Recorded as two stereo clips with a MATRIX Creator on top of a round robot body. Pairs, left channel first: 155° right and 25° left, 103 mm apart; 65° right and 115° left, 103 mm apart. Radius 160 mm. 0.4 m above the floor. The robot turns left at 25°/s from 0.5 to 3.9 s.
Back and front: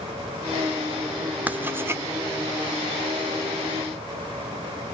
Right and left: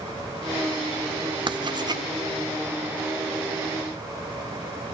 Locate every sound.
1.5 s writing: 95° left, 1.9 m; by 2.0 s 80° left, 1.9 m